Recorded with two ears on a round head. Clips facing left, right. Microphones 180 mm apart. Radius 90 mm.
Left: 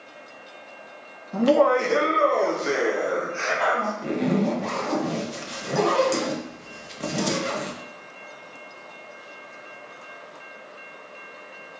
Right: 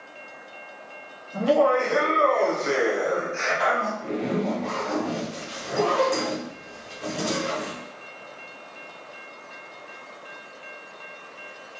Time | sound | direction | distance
1.3 | laughter | 65° left (ahead or behind) | 0.7 m
4.0 | a zipper | 55° left (ahead or behind) | 0.6 m